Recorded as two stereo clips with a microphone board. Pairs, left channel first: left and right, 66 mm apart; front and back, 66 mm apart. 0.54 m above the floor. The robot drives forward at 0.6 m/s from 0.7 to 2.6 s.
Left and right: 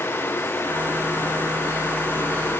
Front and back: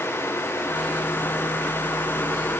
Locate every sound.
Only background noise.